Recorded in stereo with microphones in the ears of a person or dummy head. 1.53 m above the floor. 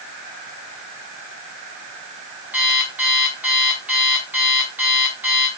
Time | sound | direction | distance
2.5 | an alarm clock | 5° right (ahead or behind) | 3.5 m